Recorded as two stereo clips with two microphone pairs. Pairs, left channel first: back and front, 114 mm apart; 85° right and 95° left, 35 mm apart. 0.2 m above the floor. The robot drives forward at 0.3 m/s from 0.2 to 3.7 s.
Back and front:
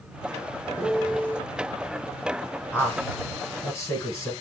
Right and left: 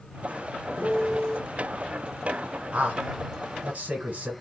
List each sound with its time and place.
0.8 s a piano: 110° right, 1.0 m; by 1.4 s 130° right, 1.0 m
2.7 s a man speaking: 110° left, 1.4 m; by 4.3 s 120° left, 1.5 m